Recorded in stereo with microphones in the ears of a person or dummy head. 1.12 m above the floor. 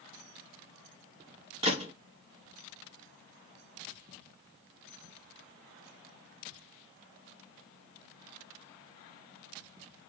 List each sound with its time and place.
1.6 s a gunshot: 30° right (ahead or behind), 1.3 m